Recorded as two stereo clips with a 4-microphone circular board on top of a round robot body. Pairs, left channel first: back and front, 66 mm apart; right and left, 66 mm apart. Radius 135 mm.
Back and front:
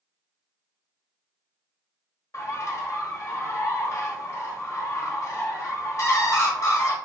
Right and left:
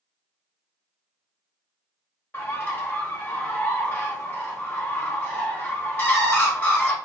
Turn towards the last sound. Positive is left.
turn(degrees=-145)